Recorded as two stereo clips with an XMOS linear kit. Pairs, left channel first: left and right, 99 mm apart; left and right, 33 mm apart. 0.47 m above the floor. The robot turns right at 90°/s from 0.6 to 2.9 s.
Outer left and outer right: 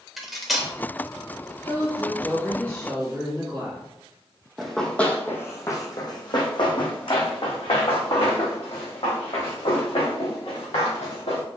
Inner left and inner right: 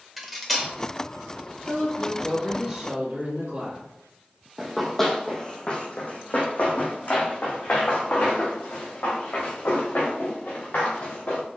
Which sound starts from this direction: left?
A woman speaking, at 1.7 s.